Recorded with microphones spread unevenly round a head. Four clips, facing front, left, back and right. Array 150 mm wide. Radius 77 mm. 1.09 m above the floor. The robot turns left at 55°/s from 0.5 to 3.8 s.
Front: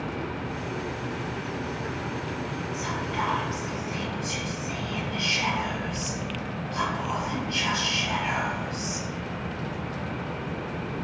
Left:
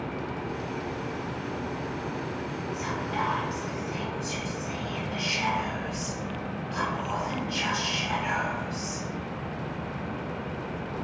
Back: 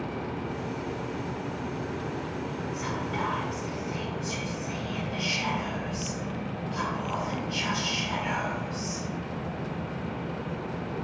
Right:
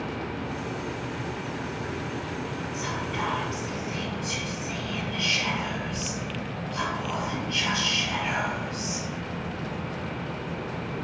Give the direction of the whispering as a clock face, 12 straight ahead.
7 o'clock.